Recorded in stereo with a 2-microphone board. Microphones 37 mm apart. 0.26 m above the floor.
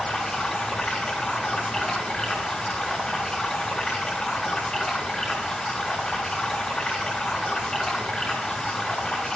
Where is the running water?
25° left (ahead or behind), 3 m.